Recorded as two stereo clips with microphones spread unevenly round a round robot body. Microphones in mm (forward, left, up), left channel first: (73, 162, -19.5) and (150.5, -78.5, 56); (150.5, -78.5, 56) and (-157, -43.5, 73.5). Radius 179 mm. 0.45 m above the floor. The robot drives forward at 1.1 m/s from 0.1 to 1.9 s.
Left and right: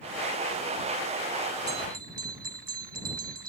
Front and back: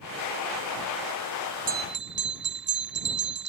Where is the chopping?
No chopping in this recording.